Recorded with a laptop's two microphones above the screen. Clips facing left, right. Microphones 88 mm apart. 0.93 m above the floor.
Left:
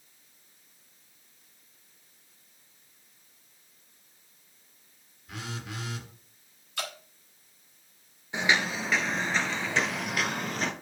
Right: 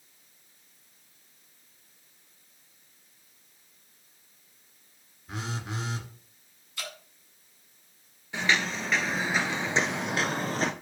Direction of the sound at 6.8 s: 65° left (ahead or behind).